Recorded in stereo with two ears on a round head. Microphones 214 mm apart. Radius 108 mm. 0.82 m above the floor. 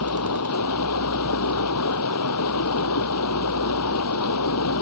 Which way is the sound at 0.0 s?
70° left (ahead or behind).